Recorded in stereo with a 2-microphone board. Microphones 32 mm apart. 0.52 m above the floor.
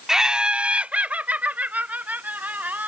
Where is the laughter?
15° right (ahead or behind); by 2.9 s 65° right (ahead or behind).